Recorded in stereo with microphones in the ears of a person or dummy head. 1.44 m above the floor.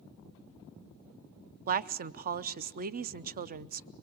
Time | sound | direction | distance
1.7 | a woman speaking | 45° right (ahead or behind) | 0.5 m